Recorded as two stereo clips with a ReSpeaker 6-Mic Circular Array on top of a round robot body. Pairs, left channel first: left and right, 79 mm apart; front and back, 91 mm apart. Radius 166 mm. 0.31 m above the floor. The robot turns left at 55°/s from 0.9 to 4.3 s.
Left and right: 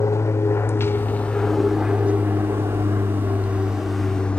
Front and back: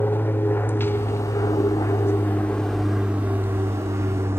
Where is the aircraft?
60° left; by 4.4 s 150° left.